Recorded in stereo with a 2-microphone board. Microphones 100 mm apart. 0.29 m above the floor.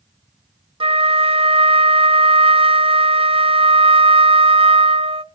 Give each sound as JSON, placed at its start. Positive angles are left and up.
{"t": 0.8, "sound": "a flute", "side_deg": -70, "distance_m": 0.5}